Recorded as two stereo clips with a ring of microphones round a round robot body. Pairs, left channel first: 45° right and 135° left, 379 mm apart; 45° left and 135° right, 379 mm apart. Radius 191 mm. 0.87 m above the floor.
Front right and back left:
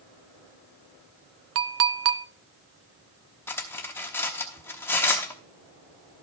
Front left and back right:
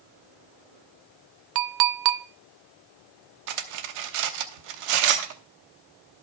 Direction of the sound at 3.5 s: 130° right.